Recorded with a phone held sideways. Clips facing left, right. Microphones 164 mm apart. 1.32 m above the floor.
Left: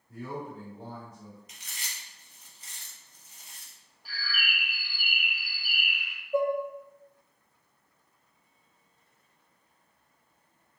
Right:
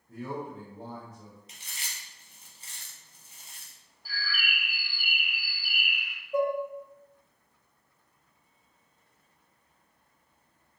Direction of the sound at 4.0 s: 40° right (ahead or behind).